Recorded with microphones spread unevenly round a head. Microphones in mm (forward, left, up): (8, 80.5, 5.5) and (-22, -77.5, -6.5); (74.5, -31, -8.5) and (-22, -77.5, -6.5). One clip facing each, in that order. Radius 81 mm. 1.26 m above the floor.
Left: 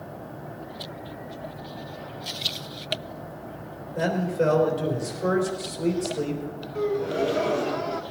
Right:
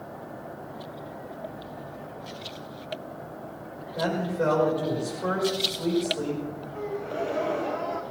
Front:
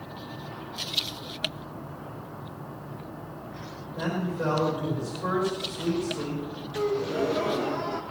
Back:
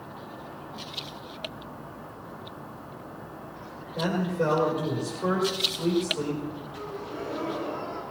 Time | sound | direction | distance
4.0 | a man speaking | 145° left | 3.5 m
6.8 | a gasp | 35° left | 1.1 m